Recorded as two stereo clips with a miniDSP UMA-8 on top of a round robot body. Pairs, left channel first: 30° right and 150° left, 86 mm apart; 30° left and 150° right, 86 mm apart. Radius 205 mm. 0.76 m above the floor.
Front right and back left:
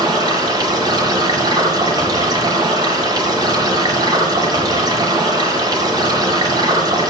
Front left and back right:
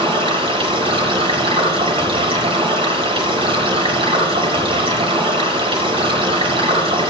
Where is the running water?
165° right, 0.9 m.